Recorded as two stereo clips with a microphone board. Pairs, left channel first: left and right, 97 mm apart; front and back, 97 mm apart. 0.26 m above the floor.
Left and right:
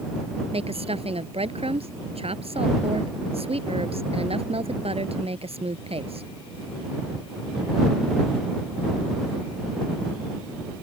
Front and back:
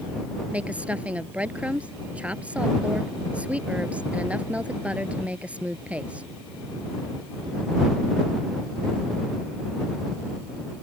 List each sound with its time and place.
0.5 s a woman speaking: 105° right